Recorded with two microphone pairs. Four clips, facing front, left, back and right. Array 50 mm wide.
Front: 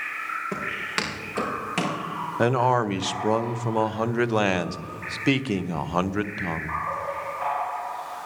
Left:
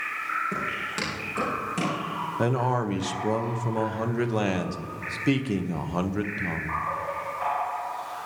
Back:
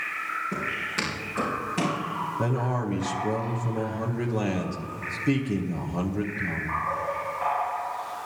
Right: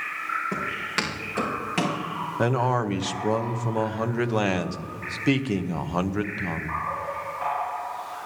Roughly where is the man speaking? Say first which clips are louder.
Right 2 dB, front 10 dB; ahead.